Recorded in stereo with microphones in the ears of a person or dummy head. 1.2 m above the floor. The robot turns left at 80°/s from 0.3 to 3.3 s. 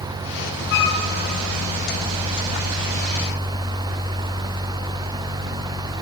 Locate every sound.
0.7 s a flute: 55° left (ahead or behind), 1.8 m; by 1.0 s 60° left (ahead or behind), 1.8 m